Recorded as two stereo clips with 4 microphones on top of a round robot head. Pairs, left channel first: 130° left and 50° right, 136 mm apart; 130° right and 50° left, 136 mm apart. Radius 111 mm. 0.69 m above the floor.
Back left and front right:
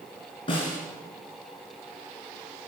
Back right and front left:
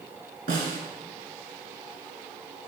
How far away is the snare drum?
About 2.5 m.